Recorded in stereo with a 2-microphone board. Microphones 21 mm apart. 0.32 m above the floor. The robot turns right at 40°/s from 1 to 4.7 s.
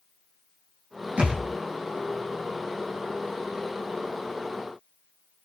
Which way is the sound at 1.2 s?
80° right.